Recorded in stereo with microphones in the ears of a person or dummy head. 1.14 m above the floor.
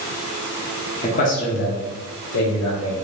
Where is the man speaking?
35° left (ahead or behind), 0.8 m; by 3.0 s 65° left (ahead or behind), 1.5 m.